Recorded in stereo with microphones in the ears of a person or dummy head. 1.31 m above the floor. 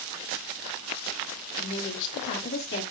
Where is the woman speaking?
75° left (ahead or behind), 3 m; by 2.8 s 55° left (ahead or behind), 3 m.